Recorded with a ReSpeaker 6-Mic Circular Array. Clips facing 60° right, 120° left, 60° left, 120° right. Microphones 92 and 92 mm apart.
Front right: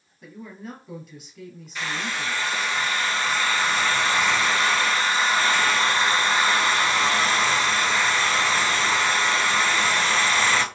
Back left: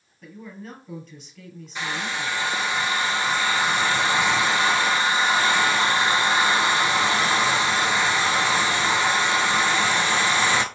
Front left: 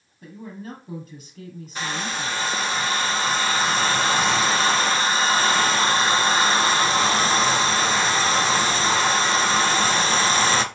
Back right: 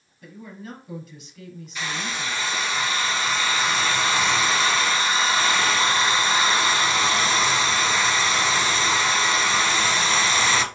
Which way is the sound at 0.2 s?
20° left.